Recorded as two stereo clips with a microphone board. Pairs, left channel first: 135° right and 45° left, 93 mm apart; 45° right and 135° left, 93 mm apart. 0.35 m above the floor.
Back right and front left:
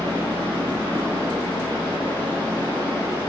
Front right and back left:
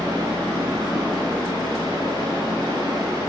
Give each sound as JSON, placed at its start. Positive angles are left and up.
{"t": 0.0, "sound": "running water", "azimuth_deg": 160, "distance_m": 2.0}